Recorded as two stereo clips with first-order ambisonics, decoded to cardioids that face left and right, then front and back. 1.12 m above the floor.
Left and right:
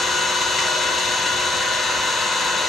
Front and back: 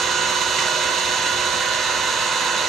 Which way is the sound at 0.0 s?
150° left.